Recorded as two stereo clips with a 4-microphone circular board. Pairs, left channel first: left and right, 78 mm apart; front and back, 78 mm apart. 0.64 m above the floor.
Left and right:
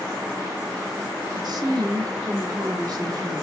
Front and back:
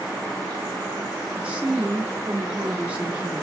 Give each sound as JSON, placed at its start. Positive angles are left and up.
{"t": 1.4, "sound": "a woman speaking", "azimuth_deg": -110, "distance_m": 1.0}